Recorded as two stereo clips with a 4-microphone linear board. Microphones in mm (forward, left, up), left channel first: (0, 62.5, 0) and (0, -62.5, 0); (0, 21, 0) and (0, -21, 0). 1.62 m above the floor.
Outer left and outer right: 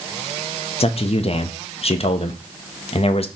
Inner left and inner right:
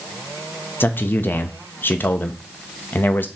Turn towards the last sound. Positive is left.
turn(degrees=60)  # may be behind; listen again after turning